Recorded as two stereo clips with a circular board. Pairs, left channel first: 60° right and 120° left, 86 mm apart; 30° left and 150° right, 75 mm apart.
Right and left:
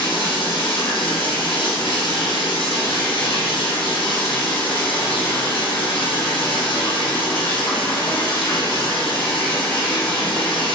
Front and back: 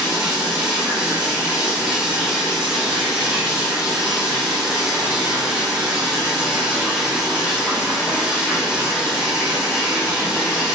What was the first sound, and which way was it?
Running water, 75° right.